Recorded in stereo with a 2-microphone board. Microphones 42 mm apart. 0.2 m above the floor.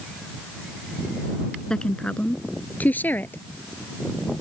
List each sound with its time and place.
1.7 s a woman speaking: 15° left (ahead or behind); by 3.4 s 50° left (ahead or behind)